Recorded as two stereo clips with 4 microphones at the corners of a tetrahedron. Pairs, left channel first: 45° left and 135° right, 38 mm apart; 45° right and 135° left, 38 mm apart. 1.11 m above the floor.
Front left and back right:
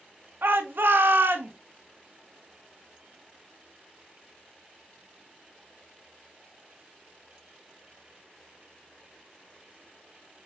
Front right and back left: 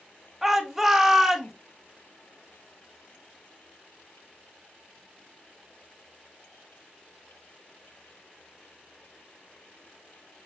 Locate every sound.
0.4 s a shout: 145° right, 0.6 m